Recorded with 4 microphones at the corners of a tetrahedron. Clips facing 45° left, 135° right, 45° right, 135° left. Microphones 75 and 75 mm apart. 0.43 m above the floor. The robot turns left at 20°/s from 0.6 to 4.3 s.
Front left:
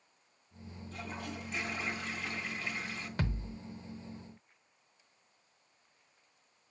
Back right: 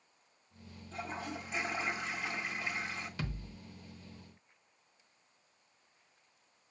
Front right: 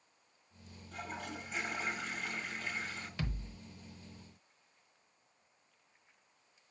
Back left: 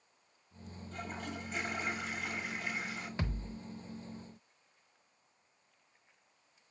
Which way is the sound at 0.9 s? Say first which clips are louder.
Back right 2 dB, back left 1 dB; 125° right.